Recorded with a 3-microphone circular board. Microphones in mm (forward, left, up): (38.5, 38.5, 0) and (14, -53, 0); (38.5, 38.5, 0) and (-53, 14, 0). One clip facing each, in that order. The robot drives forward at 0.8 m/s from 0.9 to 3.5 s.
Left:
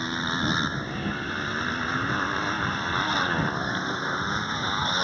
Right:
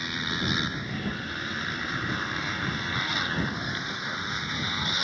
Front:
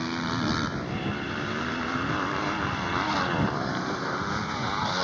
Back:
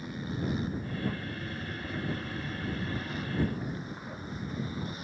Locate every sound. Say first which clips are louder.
0.0 s a motorcycle: left 4 dB, front 7 dB; 15° left; by 5.0 s 20° left